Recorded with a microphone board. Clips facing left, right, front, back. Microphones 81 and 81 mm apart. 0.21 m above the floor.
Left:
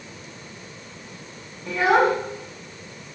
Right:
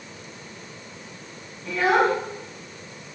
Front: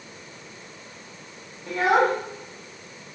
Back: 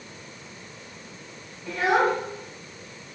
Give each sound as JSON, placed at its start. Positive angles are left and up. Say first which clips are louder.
{"t": 1.7, "sound": "a child speaking", "louder": "left 2 dB, front 2 dB", "azimuth_deg": 20, "distance_m": 1.6}